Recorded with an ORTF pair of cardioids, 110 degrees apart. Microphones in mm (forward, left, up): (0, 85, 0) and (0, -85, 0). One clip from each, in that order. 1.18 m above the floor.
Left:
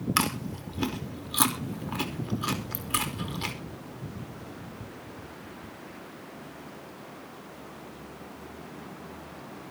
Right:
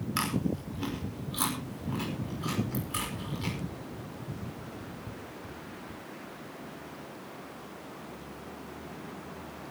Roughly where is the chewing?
Ahead left.